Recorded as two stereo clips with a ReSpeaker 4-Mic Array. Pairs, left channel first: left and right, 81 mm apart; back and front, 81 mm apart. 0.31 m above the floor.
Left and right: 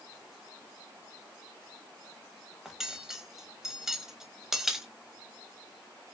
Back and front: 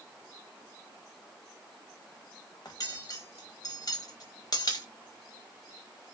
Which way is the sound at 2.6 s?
175° right.